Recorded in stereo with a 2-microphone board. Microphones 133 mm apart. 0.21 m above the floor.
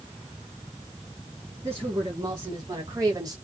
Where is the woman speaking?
25° right (ahead or behind), 2.5 m; by 3.4 s 30° right (ahead or behind), 1.6 m.